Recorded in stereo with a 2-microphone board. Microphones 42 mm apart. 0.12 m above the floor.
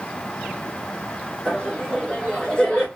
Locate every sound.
1.4 s laughter: 25° left (ahead or behind), 1.2 m